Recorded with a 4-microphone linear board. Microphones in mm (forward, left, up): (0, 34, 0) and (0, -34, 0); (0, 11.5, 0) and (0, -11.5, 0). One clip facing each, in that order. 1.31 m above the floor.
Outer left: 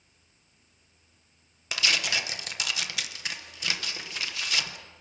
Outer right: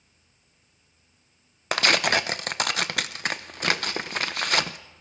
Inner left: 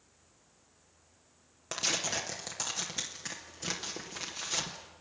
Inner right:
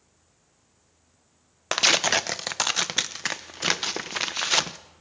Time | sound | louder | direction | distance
1.7 | tearing paper | outer right 7 dB, inner right 12 dB | 55° right (ahead or behind) | 0.6 m